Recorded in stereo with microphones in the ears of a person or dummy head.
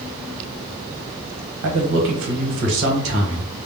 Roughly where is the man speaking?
Right.